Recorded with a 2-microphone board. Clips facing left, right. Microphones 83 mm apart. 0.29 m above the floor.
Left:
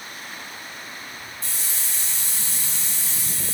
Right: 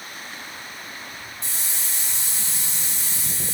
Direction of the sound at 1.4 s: 25° right (ahead or behind).